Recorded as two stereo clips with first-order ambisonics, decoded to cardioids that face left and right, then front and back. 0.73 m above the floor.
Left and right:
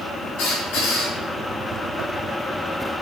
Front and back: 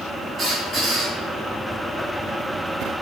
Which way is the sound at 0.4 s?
105° left.